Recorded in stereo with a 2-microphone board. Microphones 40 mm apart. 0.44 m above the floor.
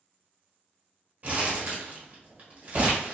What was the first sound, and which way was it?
Crumpling, 40° right (ahead or behind).